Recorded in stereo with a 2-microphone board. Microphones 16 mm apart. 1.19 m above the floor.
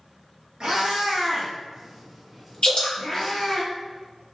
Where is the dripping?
70° left (ahead or behind), 1.2 m.